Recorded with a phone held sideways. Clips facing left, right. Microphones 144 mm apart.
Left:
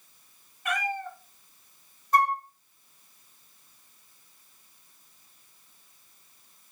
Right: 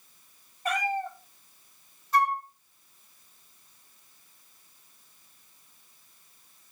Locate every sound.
0.7 s a cat meowing: 35° right (ahead or behind), 1.3 m
2.1 s a flute: 50° left (ahead or behind), 0.6 m